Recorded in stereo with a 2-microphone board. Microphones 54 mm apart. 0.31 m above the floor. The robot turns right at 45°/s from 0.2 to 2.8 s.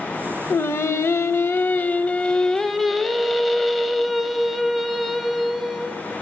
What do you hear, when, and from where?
0.5 s singing: 75° left, 0.5 m; by 6.0 s straight behind, 0.5 m